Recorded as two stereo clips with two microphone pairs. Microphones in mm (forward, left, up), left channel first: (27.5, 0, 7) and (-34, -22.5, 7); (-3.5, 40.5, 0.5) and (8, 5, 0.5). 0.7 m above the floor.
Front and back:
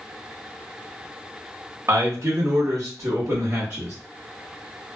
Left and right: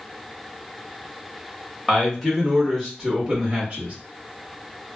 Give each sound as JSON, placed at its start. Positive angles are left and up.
{"t": 1.9, "sound": "a man speaking", "azimuth_deg": 175, "distance_m": 1.2}